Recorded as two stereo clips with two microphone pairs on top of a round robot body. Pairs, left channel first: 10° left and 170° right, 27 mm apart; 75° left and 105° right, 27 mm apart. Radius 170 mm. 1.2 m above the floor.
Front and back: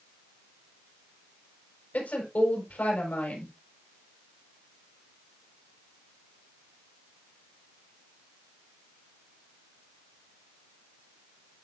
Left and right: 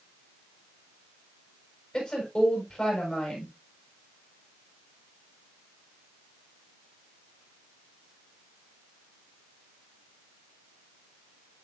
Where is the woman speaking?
15° left, 7 m.